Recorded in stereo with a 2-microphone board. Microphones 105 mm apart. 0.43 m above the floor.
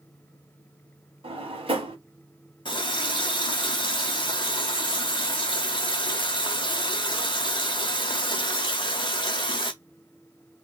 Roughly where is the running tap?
Left.